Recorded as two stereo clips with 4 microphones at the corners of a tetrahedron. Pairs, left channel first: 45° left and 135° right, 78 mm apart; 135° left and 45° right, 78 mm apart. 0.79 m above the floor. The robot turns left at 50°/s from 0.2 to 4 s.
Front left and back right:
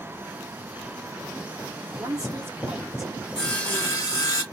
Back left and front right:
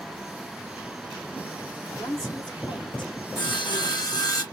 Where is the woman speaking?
170° right, 1.9 m; by 4.2 s 90° left, 1.9 m.